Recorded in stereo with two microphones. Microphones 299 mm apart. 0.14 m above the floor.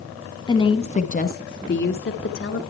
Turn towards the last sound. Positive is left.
turn(degrees=45)  # may be behind; listen again after turning